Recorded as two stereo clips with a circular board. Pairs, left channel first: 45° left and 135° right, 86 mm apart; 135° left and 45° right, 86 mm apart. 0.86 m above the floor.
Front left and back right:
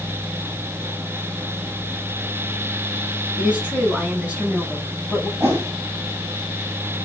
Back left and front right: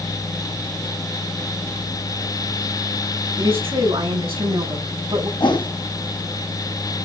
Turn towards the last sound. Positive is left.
turn(degrees=165)